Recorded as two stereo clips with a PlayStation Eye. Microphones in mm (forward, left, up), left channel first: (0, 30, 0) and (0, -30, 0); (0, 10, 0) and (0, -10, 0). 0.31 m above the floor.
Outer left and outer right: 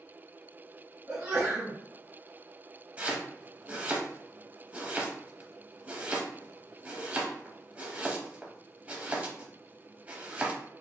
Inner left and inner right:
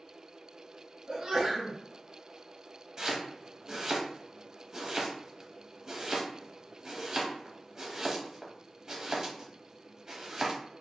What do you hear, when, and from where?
1.1 s a sneeze: 25° right (ahead or behind), 1.4 m
3.0 s chopping: 25° right (ahead or behind), 0.8 m